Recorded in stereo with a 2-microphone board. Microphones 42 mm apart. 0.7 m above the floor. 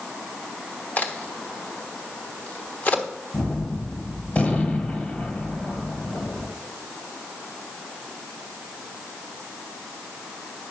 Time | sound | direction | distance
1.0 | a crack | 45° left (ahead or behind) | 1.2 m
3.3 | a gunshot | 35° left (ahead or behind) | 1.6 m